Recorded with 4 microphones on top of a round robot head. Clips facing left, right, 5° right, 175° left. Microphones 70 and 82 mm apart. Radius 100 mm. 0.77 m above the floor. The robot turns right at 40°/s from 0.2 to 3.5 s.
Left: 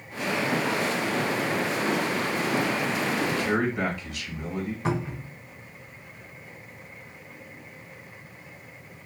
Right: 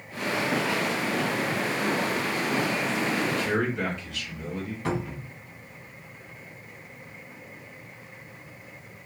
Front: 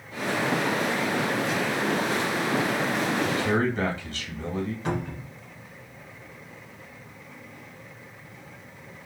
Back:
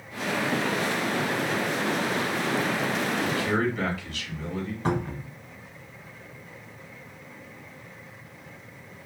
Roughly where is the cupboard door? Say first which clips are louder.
Right 1 dB, back 2 dB; behind left.